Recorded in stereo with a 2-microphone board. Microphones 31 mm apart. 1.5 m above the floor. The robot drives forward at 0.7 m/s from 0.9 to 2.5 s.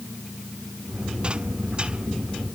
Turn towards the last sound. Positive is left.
No sound to turn to.